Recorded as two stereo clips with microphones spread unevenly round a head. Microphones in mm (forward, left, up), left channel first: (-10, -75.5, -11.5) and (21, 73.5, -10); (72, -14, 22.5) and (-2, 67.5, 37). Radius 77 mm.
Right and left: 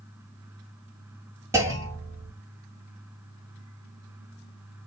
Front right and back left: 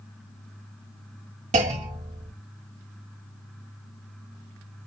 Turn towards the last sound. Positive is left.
turn(degrees=150)